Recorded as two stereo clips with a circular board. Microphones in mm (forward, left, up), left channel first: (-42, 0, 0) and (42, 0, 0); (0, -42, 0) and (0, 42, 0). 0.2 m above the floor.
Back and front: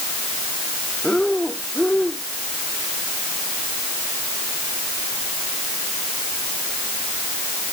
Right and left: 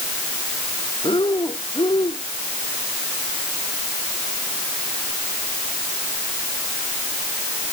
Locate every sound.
1.0 s breathing: 95° right